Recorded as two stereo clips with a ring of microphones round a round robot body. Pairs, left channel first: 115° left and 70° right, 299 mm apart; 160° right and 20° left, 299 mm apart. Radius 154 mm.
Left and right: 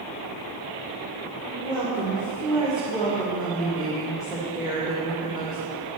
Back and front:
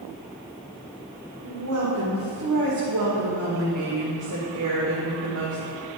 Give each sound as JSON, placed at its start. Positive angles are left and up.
{"t": 1.4, "sound": "a woman speaking", "azimuth_deg": 20, "distance_m": 2.0}